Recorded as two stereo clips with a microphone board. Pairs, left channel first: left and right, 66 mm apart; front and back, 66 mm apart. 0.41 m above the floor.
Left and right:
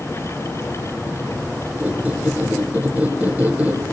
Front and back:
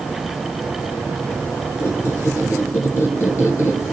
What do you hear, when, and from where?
1.8 s a squeak: 25° right, 1.6 m